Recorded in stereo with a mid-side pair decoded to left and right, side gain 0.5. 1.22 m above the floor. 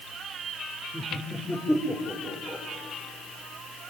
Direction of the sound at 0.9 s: Straight ahead.